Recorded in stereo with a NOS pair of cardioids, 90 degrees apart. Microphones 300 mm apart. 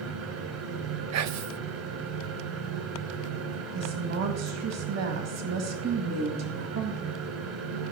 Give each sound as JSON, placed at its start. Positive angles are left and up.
{"t": 0.0, "sound": "a fan", "azimuth_deg": -55, "distance_m": 2.0}
{"t": 1.1, "sound": "whispering", "azimuth_deg": -65, "distance_m": 0.7}
{"t": 3.7, "sound": "a woman speaking", "azimuth_deg": -65, "distance_m": 2.0}